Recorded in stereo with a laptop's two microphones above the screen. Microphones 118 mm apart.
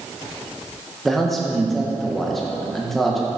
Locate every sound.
1.1 s a man speaking: centre (ahead or behind), 0.7 m